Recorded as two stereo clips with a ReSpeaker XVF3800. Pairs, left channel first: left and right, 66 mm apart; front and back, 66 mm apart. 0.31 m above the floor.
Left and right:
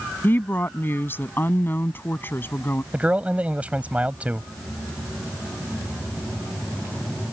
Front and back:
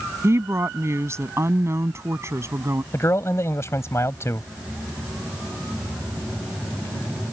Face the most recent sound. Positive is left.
turn(degrees=-25)